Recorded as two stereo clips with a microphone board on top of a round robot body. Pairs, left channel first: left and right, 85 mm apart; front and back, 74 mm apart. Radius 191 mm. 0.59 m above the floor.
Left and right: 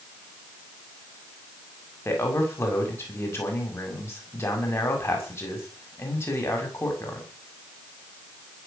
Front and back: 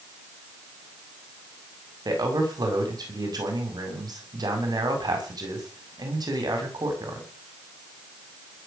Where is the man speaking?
150° left, 6.5 m.